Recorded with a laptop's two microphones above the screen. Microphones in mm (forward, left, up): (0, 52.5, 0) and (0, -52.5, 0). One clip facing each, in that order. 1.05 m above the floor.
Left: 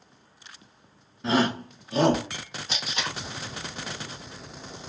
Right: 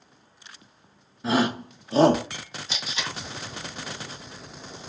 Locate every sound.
1.2 s a shout: 5° right (ahead or behind), 0.7 m; by 2.2 s 40° right (ahead or behind), 0.6 m
2.7 s tape being pulled: 50° left (ahead or behind), 0.9 m